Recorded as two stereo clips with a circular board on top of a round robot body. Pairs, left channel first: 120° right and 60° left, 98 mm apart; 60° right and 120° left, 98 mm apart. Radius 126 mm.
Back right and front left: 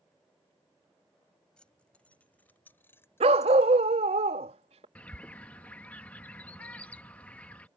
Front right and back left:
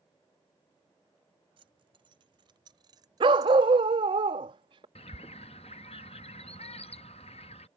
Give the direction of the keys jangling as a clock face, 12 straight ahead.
7 o'clock.